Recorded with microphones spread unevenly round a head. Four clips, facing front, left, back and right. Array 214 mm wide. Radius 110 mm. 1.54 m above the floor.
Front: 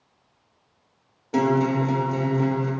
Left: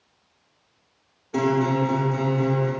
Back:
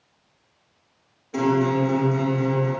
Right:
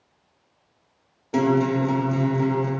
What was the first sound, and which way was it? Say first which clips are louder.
A guitar: right 1 dB, even; 65° right.